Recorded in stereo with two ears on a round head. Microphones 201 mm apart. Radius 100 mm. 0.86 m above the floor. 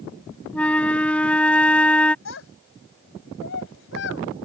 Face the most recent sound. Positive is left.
turn(degrees=60)  # may be behind; listen again after turning